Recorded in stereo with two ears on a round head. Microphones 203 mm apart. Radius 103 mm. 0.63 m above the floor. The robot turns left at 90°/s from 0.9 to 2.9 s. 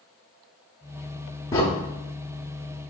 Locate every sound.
1.5 s a crack: 15° left (ahead or behind), 0.7 m; by 1.6 s 5° left (ahead or behind), 0.7 m